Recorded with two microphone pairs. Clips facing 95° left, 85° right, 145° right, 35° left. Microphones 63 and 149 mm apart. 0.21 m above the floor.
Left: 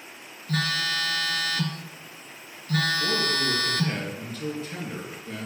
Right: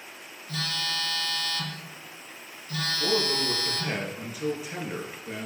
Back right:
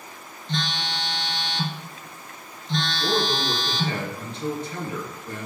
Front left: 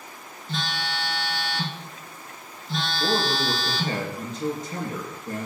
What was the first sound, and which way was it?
A phone buzzing, 115° left.